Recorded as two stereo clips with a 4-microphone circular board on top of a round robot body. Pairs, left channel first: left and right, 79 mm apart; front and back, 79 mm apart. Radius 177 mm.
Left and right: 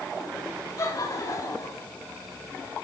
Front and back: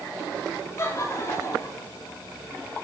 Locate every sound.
0.8 s laughter: 50° left, 5.5 m; by 1.9 s 45° left, 6.5 m